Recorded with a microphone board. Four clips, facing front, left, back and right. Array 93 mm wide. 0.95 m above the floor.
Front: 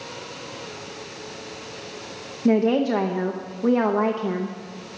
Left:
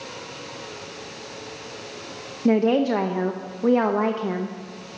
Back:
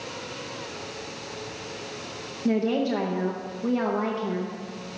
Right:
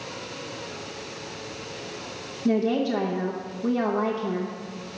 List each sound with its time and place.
2.5 s a woman speaking: 55° left, 0.8 m